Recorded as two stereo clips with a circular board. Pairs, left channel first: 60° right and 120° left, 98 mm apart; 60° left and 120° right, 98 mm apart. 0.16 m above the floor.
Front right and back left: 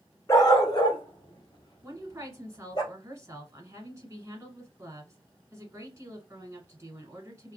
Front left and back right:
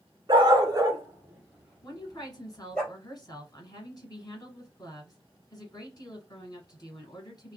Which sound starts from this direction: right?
A dog barking, at 0.3 s.